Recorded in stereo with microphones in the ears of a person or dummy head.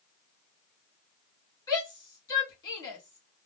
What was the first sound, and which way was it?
A shout, 25° left (ahead or behind).